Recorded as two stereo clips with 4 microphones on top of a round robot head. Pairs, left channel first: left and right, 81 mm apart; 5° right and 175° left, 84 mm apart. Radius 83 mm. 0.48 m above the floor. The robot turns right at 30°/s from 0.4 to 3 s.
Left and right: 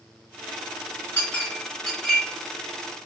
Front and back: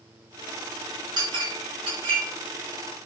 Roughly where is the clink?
Behind left.